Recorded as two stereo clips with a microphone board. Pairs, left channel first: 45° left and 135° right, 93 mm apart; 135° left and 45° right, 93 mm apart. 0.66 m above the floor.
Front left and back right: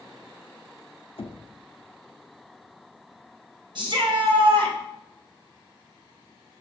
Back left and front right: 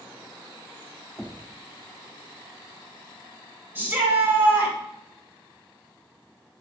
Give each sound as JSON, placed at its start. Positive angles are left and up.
{"t": 1.2, "sound": "knocking", "azimuth_deg": 55, "distance_m": 0.6}
{"t": 3.8, "sound": "a shout", "azimuth_deg": -115, "distance_m": 3.5}